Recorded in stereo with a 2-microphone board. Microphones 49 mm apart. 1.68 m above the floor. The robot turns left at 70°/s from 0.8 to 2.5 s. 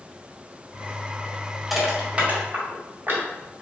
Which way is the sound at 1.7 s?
Centre (ahead or behind).